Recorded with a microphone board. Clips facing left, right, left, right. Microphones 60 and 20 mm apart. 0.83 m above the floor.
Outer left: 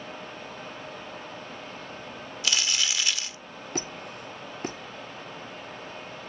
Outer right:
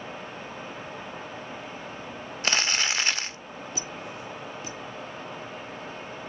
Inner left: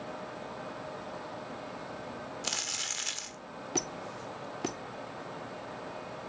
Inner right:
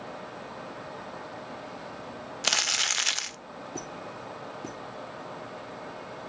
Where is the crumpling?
40° right (ahead or behind), 0.6 m.